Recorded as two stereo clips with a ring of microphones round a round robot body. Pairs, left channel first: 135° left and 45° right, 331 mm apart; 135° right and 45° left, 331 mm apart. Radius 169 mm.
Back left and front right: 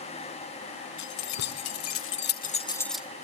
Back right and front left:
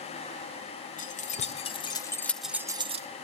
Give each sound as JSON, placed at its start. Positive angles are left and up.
{"t": 1.0, "sound": "keys jangling", "azimuth_deg": 160, "distance_m": 1.6}